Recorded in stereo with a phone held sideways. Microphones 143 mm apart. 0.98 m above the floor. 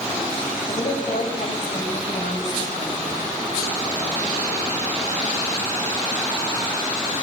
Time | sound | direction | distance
0.7 | a woman speaking | 60° left (ahead or behind) | 4.5 m